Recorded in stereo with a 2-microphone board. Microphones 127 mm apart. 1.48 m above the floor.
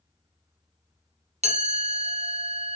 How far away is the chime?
About 0.7 m.